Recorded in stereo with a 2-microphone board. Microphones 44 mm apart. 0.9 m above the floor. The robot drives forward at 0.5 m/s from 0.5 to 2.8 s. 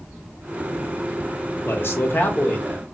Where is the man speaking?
60° left (ahead or behind), 0.6 m; by 2.9 s 35° left (ahead or behind), 0.8 m.